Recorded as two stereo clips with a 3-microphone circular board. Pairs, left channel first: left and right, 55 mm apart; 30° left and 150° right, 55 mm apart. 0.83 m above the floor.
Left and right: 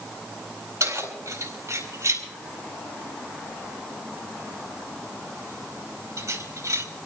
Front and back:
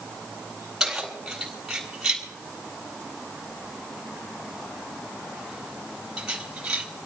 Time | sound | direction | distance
0.8 | keys jangling | 65° right | 7 m